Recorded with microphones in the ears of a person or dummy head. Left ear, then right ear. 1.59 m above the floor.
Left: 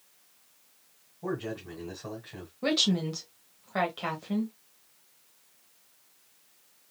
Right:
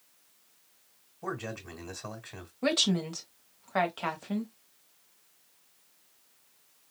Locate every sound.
1.2 s a man speaking: 80° right, 1.3 m
2.6 s a woman speaking: 30° right (ahead or behind), 1.2 m